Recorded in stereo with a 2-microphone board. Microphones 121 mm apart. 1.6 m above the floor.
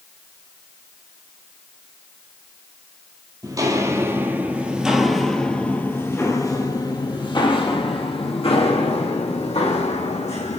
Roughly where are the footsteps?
Right.